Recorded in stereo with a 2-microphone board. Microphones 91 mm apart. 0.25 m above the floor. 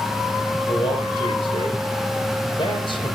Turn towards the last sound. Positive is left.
turn(degrees=70)  # may be behind; listen again after turning